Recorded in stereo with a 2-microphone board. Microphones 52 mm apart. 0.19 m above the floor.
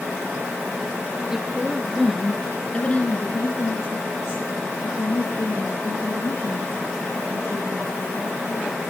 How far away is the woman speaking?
About 3.5 m.